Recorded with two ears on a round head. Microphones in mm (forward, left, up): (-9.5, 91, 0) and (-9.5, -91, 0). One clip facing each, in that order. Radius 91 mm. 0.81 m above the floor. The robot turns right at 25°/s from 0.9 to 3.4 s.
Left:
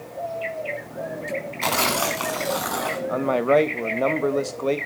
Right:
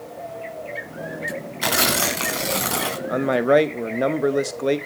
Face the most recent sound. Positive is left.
turn(degrees=-15)  # may be behind; listen again after turning